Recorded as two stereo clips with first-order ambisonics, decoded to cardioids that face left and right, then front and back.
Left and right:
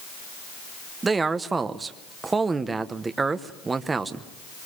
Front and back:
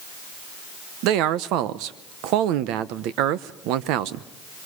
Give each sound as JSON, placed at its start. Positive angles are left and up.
{"t": 1.0, "sound": "a man speaking", "azimuth_deg": -165, "distance_m": 0.9}